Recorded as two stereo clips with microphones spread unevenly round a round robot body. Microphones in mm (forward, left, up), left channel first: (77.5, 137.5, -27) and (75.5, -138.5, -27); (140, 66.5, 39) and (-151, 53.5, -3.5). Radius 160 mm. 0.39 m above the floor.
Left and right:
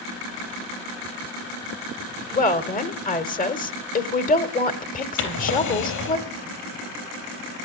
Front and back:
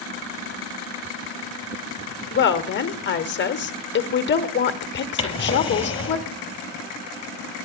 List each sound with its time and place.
2.3 s a woman speaking: 45° left, 1.1 m
5.2 s a drawer: 75° left, 3.5 m